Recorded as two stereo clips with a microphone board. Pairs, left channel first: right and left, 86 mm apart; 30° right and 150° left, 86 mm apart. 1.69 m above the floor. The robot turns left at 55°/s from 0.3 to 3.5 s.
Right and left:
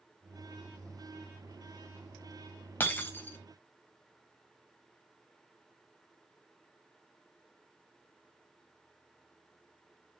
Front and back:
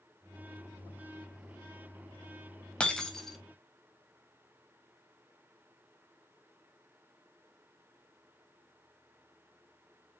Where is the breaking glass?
85° right, 0.8 m; by 3.4 s 115° right, 0.8 m.